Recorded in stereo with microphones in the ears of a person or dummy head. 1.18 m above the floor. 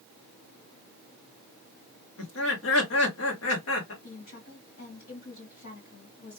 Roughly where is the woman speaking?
Left.